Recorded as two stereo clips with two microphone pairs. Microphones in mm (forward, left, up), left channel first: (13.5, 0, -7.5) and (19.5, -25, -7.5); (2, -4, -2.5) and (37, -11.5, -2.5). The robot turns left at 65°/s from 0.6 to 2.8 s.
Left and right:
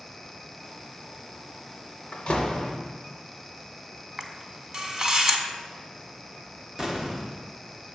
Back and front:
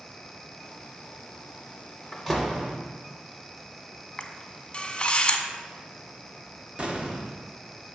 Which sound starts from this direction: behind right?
A camera shutter, at 4.2 s.